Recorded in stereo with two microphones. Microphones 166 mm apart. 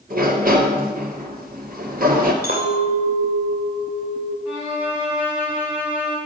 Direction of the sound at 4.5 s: 10° right (ahead or behind).